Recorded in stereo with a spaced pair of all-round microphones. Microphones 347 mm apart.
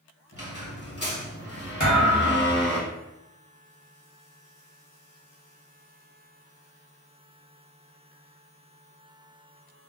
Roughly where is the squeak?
Left.